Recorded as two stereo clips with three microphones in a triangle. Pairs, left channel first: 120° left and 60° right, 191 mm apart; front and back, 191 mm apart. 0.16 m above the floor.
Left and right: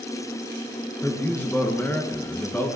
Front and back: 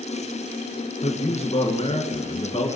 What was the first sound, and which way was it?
A man speaking, 45° left.